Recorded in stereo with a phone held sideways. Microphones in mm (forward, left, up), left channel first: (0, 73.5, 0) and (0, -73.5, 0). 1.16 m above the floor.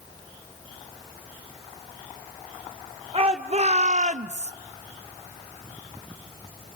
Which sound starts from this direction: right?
A shout, at 3.1 s.